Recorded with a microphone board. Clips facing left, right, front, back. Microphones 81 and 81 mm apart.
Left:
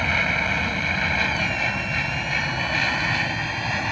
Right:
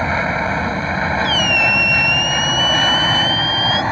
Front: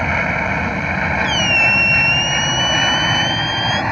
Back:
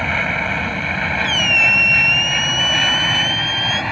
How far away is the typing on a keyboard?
I don't hear typing on a keyboard.